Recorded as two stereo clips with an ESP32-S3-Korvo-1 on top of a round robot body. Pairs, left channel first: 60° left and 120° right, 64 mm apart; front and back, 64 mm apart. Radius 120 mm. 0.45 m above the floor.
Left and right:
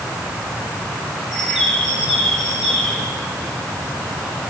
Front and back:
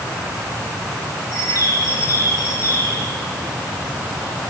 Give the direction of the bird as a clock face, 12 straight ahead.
1 o'clock.